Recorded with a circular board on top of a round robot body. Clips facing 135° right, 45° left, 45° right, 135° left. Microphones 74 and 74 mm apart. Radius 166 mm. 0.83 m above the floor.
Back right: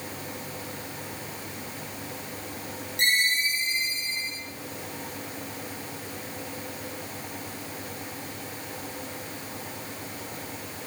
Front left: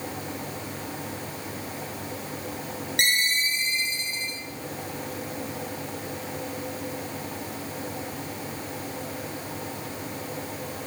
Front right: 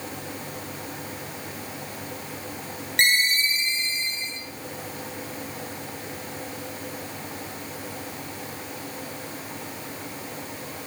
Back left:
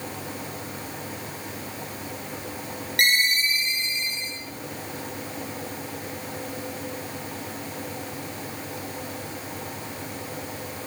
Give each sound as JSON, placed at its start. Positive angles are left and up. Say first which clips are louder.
{"t": 3.0, "sound": "a ringtone", "louder": "back right 1 dB, even", "azimuth_deg": 20, "distance_m": 2.0}